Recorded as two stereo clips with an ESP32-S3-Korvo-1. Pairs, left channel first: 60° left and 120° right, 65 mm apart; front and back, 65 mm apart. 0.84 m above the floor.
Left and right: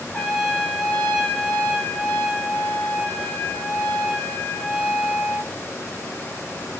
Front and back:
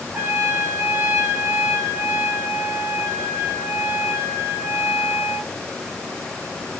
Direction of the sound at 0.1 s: 130° left.